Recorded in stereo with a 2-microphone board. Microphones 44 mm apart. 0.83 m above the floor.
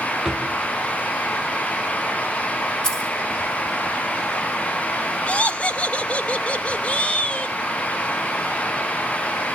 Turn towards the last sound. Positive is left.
turn(degrees=30)  # may be behind; listen again after turning